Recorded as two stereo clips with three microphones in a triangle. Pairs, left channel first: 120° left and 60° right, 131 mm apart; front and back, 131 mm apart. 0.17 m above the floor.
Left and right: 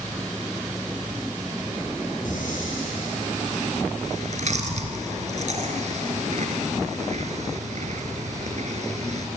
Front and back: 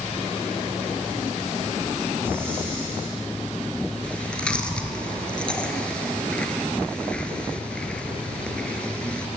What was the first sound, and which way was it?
Breathing, 105° left.